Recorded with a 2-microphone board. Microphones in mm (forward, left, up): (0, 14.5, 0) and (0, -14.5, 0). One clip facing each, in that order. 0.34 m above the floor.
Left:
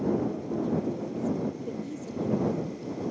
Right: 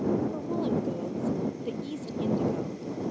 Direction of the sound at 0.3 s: 55° right (ahead or behind).